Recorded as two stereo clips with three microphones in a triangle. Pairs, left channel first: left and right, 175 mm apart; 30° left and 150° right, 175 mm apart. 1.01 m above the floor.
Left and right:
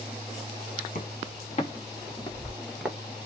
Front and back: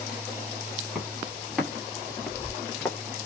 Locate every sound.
0.9 s footsteps: 125° left, 1.8 m; by 3.0 s 35° right, 0.9 m